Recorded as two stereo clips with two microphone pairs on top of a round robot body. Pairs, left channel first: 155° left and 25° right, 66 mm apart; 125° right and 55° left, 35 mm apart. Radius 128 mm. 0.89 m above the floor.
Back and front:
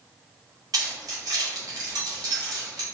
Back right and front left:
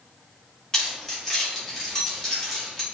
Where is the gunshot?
No gunshot in this recording.